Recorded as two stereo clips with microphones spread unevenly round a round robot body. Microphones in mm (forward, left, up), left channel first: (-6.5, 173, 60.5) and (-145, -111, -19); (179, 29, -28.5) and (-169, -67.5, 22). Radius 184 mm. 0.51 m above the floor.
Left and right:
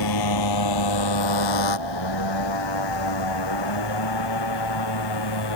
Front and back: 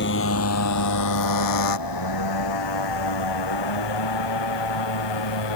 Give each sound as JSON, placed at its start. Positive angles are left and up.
{"t": 0.0, "sound": "a motorcycle", "azimuth_deg": 80}